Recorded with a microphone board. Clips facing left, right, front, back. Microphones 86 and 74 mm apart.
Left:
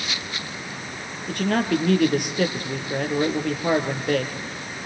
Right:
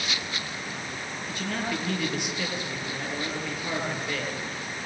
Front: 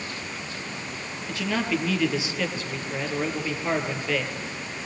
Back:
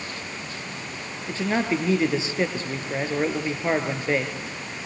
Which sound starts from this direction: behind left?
A man speaking, at 1.3 s.